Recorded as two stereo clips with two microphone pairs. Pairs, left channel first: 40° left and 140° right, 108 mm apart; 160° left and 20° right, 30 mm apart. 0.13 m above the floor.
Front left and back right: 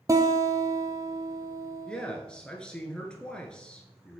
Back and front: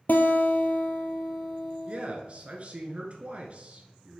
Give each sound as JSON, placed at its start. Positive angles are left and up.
{"t": 0.1, "sound": "a guitar", "azimuth_deg": 165, "distance_m": 0.9}
{"t": 1.9, "sound": "a man speaking", "azimuth_deg": -35, "distance_m": 1.5}